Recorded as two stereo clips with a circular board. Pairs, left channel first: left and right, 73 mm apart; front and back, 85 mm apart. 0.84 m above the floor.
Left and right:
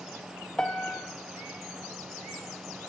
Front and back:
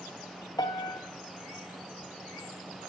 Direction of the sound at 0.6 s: 10° left.